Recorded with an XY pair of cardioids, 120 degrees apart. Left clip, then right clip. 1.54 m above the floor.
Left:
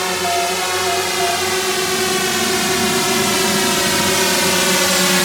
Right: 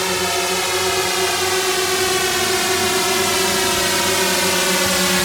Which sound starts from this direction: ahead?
A drone, at 0.0 s.